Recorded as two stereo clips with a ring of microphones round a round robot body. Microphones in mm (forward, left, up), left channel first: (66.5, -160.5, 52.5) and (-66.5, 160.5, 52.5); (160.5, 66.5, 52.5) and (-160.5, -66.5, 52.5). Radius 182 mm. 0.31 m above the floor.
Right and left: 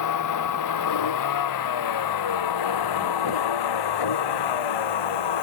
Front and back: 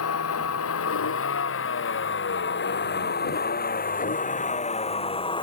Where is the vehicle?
30° right; by 5.4 s 55° right.